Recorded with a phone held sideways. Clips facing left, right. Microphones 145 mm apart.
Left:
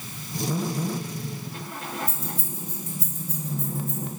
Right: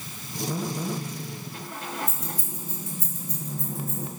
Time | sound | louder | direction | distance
2.1 | keys jangling | left 1 dB | 30° left (ahead or behind) | 2.0 m